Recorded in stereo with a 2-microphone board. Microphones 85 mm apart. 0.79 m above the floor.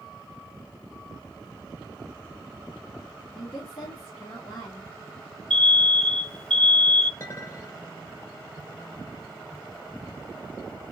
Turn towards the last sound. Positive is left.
turn(degrees=35)  # may be behind; listen again after turning